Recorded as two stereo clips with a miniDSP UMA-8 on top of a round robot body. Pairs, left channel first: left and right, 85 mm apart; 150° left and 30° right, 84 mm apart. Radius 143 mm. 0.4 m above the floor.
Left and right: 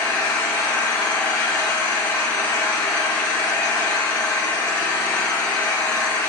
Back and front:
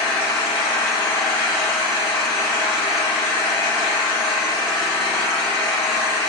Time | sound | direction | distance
0.0 | an engine running | 160° left | 3 m